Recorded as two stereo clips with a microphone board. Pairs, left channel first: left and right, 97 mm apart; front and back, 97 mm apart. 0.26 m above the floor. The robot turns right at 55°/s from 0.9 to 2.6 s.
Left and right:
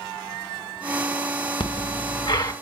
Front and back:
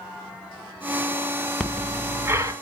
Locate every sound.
1.6 s breathing: 85° left, 1.1 m; by 2.5 s 135° left, 1.1 m